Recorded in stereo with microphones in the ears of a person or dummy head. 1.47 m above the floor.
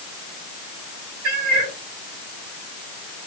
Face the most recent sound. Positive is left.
turn(degrees=-55)  # may be behind; listen again after turning